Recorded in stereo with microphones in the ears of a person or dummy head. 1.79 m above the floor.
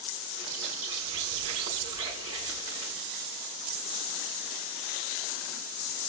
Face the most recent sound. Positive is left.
turn(degrees=-30)  # may be behind; listen again after turning